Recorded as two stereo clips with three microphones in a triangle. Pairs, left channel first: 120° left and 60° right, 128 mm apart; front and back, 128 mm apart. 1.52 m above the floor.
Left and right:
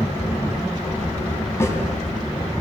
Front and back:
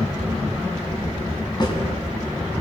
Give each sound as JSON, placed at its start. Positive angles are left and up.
{"t": 1.6, "sound": "a snare drum", "azimuth_deg": 50, "distance_m": 3.5}